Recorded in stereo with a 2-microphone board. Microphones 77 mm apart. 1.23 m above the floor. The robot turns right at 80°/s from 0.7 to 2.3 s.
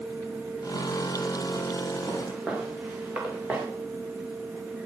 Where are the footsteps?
35° right (ahead or behind), 7 m; by 3.7 s 20° right (ahead or behind), 6 m.